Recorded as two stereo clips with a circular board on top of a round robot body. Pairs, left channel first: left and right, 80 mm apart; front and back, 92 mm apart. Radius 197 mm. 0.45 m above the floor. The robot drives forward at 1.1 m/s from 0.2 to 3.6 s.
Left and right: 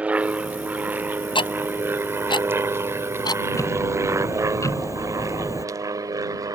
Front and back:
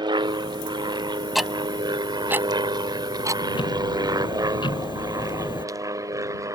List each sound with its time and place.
0.0 s an aircraft: 160° right; by 6.6 s 130° right
1.4 s ticking: 90° left; by 3.4 s 125° left
3.5 s ticking: 35° left